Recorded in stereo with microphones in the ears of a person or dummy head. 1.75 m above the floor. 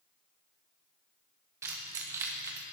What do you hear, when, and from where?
1.6 s keys jangling: 15° right (ahead or behind), 1.0 m